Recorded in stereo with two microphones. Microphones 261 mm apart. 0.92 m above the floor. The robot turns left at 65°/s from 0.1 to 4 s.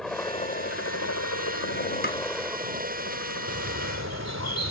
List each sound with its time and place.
0.0 s a helicopter: centre (ahead or behind); by 4.7 s 45° right (ahead or behind)
2.0 s tapping: 40° left (ahead or behind); by 2.2 s 50° left (ahead or behind)
3.5 s a bird: 60° right; by 4.7 s 95° right